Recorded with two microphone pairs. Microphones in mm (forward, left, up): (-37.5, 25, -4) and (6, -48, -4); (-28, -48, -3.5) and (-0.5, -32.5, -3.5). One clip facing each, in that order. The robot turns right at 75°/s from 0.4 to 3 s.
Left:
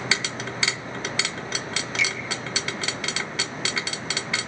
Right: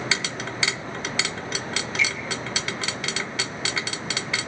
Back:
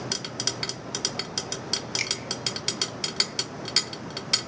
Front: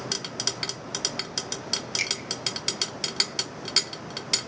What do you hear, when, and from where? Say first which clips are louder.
2.0 s a finger snap: right 1 dB, front 2 dB; 115° left, 1.7 m; by 2.1 s 125° left, 1.7 m